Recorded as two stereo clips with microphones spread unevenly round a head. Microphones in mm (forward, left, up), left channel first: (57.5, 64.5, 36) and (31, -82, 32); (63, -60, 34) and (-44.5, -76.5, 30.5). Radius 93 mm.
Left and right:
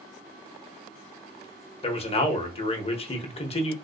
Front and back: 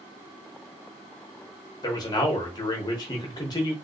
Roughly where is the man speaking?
Ahead left.